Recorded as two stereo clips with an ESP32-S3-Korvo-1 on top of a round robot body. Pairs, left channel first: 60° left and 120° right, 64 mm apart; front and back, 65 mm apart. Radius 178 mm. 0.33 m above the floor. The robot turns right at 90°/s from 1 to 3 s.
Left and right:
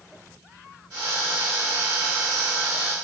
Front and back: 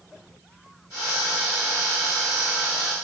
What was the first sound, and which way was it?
Only background noise.